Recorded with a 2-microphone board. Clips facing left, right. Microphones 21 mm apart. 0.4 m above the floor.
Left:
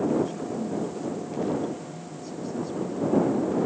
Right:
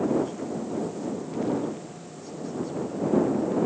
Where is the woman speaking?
20° left (ahead or behind).